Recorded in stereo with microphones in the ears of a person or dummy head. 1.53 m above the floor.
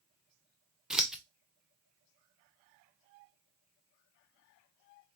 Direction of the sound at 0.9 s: 5° right (ahead or behind).